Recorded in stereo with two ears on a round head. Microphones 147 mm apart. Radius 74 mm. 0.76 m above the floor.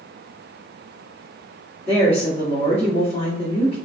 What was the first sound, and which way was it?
A woman speaking, 35° left (ahead or behind).